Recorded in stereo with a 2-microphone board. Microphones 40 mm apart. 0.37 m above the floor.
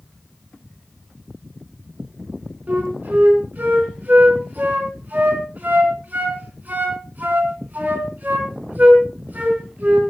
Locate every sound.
2.7 s a flute: 45° right (ahead or behind), 4 m